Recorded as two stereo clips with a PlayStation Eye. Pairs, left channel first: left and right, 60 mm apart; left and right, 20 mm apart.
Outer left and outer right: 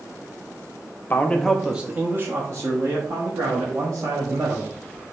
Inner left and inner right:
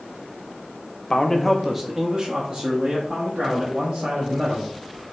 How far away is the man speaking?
About 0.7 m.